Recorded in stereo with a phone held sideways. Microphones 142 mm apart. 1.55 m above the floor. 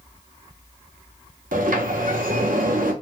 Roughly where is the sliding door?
Right.